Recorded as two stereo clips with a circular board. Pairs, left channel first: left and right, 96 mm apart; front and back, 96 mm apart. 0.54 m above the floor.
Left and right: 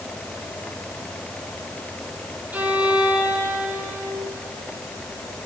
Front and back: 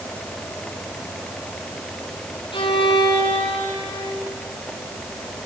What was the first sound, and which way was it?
A violin, 15° right.